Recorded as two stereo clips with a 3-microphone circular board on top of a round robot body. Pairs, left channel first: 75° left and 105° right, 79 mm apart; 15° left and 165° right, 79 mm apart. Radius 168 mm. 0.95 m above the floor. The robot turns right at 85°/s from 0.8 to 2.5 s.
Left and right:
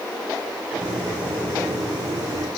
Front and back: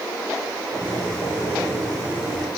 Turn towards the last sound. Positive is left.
No sound to turn to.